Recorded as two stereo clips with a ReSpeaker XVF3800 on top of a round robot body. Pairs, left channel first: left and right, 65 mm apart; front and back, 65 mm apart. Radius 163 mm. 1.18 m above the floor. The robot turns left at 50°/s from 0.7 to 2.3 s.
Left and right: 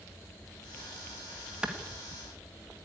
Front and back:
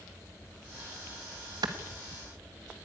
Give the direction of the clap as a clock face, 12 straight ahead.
5 o'clock.